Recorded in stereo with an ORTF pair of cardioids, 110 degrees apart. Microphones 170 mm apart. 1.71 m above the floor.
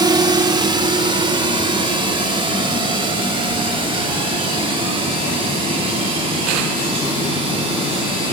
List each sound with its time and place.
0.0 s a drone: 25° right; by 8.3 s 30° right